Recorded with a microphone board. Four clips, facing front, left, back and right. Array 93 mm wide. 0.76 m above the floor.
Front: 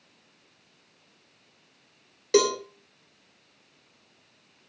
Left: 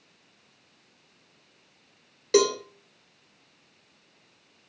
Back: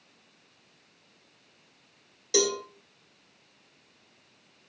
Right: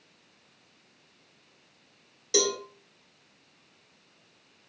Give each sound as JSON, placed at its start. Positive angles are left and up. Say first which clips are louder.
{"t": 2.3, "sound": "a cowbell", "louder": "left 6 dB, front 5 dB", "azimuth_deg": 45, "distance_m": 2.5}